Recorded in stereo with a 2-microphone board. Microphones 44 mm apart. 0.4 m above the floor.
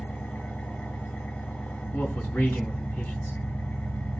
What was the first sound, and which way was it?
An engine running, 40° left (ahead or behind).